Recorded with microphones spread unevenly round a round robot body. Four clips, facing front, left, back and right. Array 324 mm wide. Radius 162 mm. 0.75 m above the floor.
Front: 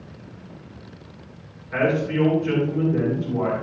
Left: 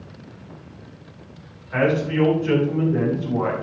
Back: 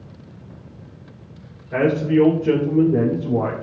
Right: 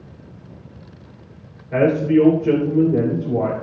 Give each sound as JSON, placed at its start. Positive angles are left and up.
{"t": 1.7, "sound": "a man speaking", "azimuth_deg": -125, "distance_m": 3.0}